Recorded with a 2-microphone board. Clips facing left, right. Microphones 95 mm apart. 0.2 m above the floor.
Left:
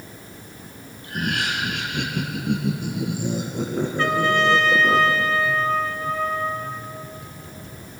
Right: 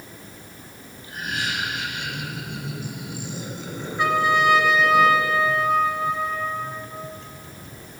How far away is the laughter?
About 4 m.